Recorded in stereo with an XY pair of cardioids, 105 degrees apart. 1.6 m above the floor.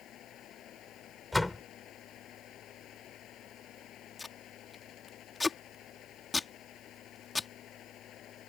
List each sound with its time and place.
0.0 s a fan: 70° left
1.3 s a door slam: 10° left
4.2 s tape being pulled: 20° left